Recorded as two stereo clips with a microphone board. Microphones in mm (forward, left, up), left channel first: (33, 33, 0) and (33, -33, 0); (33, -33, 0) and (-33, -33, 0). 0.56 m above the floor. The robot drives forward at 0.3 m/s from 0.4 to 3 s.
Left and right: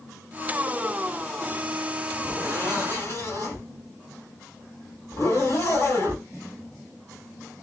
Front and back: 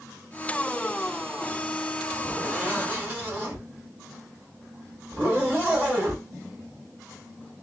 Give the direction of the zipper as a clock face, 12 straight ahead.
8 o'clock.